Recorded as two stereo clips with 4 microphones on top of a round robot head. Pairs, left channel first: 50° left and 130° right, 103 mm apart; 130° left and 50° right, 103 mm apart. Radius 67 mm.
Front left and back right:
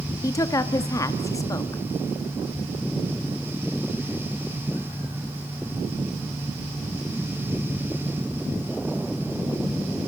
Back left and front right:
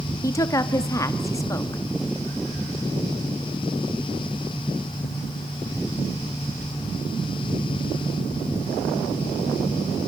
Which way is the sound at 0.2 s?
90° left.